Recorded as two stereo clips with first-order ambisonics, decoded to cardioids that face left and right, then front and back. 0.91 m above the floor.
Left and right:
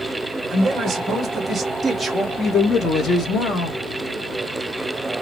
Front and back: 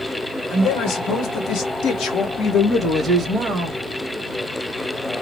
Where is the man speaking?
25° right, 1.8 m; by 3.8 s 125° left, 1.1 m.